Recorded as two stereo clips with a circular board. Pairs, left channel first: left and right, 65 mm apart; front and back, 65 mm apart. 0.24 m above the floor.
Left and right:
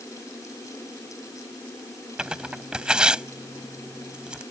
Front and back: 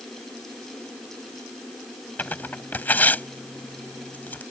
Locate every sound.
2.2 s tearing paper: 30° right